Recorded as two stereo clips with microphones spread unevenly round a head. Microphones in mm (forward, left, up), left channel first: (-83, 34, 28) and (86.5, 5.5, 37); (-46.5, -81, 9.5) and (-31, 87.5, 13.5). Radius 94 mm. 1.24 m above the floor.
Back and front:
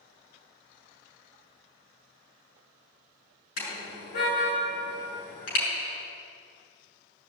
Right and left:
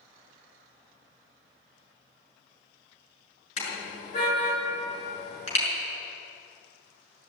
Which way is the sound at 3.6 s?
145° right.